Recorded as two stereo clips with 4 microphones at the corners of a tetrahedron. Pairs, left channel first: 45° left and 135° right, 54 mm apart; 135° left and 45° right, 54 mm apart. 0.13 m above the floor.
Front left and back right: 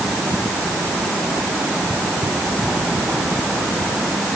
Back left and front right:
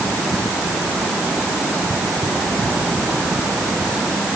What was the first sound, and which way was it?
Only background noise.